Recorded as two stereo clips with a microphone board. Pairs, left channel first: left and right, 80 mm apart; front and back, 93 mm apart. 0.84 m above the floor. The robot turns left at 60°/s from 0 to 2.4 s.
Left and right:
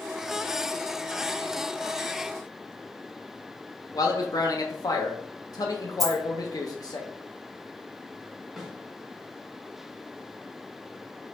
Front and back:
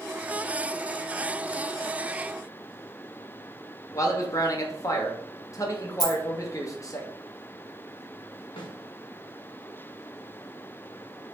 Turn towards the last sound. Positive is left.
turn(degrees=-5)